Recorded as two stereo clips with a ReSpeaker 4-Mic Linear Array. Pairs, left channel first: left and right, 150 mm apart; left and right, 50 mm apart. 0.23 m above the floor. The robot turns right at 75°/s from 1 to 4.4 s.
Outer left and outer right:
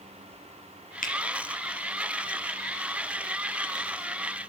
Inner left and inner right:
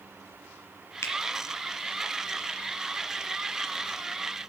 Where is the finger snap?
65° left (ahead or behind), 3 m; by 1.1 s 55° left (ahead or behind), 3 m.